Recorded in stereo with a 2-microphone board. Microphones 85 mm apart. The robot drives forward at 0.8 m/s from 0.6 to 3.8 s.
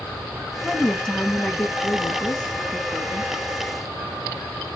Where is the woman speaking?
5° left (ahead or behind), 1.2 m.